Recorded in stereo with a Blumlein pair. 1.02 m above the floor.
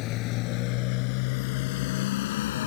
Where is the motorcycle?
40° left; by 2.7 s 55° left.